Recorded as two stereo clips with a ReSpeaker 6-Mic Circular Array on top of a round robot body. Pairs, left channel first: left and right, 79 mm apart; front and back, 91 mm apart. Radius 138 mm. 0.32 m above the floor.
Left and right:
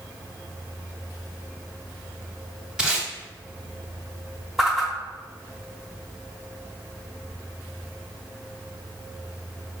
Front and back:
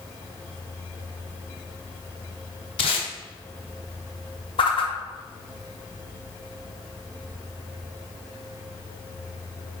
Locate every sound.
2.8 s tape being pulled: 10° right, 0.8 m
4.6 s a whoosh: 5° right, 0.8 m